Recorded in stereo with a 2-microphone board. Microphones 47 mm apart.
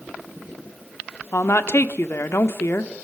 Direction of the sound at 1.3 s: 65° left (ahead or behind).